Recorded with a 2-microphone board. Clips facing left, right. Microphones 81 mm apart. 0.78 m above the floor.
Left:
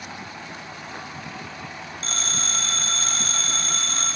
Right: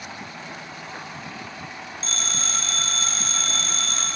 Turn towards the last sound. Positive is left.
turn(degrees=50)  # may be behind; listen again after turning